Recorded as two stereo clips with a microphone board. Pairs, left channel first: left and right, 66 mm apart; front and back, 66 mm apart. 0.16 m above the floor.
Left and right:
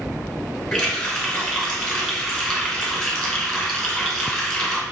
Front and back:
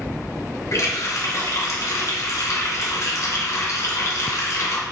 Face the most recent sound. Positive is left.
turn(degrees=10)